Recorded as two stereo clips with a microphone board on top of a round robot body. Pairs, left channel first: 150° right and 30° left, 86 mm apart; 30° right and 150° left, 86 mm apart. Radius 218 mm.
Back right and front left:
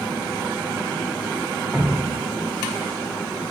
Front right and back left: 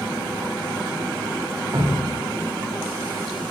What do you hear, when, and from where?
1.7 s dripping: 120° left, 0.6 m